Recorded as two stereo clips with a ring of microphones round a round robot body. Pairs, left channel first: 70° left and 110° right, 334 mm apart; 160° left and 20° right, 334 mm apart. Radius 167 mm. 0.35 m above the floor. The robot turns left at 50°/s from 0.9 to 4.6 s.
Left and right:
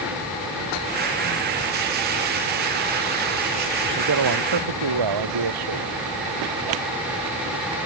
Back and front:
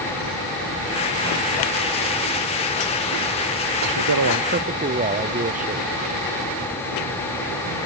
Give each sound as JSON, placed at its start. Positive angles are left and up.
{"t": 3.8, "sound": "a man speaking", "azimuth_deg": -50}